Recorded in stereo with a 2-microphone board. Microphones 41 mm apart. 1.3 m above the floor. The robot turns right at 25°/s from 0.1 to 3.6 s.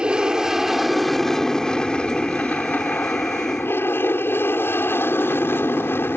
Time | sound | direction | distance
0.0 | an aircraft | 20° right | ?